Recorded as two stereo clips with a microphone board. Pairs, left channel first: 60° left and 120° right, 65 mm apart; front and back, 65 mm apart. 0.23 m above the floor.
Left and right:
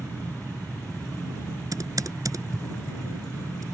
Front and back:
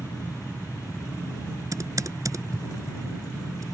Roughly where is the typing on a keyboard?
Behind right.